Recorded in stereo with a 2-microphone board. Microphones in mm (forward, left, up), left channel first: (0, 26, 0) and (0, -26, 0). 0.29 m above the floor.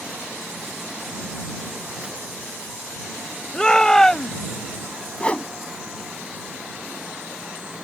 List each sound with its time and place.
3.5 s a shout: 15° left (ahead or behind); by 4.6 s 10° left (ahead or behind)
5.2 s a whoosh: 25° left (ahead or behind)